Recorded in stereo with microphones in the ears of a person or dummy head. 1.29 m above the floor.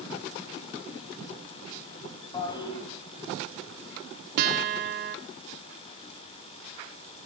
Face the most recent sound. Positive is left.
turn(degrees=-50)  # may be behind; listen again after turning